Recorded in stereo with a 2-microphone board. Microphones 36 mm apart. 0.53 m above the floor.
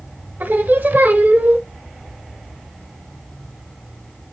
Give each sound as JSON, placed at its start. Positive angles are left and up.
{"t": 0.4, "sound": "singing", "side_deg": -60, "distance_m": 0.9}